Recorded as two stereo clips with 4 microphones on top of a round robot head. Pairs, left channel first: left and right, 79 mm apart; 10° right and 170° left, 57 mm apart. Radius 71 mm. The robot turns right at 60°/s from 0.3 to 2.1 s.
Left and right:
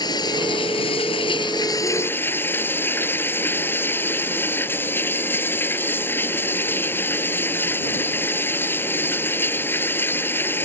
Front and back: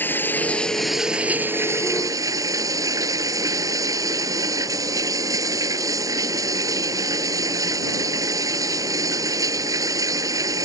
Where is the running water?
45° left; by 10.7 s 155° left.